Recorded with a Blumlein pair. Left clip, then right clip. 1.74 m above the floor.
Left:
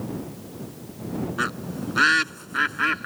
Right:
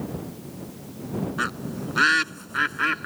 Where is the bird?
Straight ahead.